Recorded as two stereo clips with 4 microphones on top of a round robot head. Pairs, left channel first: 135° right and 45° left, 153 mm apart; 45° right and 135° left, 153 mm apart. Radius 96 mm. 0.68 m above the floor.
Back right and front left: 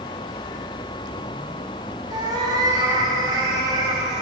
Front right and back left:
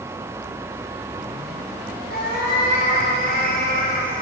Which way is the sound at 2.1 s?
20° right.